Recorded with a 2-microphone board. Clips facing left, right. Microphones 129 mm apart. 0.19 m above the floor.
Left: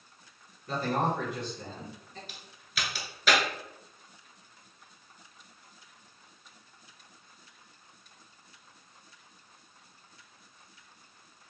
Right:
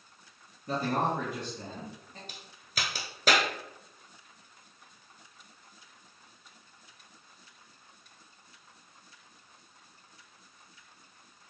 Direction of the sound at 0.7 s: 40° right (ahead or behind).